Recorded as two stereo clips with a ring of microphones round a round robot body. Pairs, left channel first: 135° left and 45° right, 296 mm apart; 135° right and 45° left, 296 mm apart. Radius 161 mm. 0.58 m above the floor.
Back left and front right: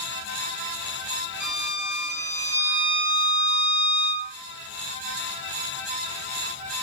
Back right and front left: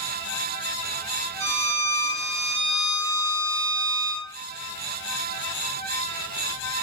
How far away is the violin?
About 1.4 m.